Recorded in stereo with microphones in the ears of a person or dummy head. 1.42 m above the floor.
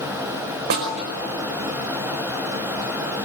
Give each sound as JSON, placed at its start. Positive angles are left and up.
{"t": 0.7, "sound": "a snare drum", "side_deg": -55, "distance_m": 4.5}